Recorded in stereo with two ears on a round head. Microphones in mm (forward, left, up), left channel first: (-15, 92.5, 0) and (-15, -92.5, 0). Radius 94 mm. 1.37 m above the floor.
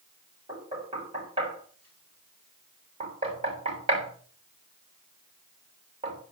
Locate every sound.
0.5 s knocking: 25° right (ahead or behind), 6.5 m